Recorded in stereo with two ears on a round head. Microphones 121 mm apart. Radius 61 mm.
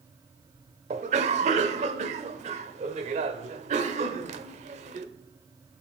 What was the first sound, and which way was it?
A cough, 55° right (ahead or behind).